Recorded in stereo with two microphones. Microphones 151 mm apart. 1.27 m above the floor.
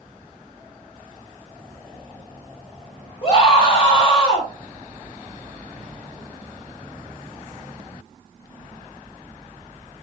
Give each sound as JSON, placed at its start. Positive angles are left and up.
{"t": 3.2, "sound": "a scream", "side_deg": 35, "distance_m": 1.9}